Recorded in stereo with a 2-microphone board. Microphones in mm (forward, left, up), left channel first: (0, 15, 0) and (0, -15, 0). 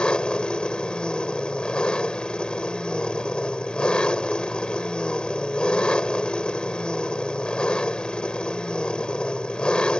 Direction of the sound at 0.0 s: 35° left (ahead or behind).